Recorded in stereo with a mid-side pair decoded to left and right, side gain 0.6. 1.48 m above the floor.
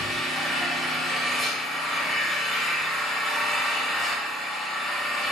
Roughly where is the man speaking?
I don't hear a man speaking.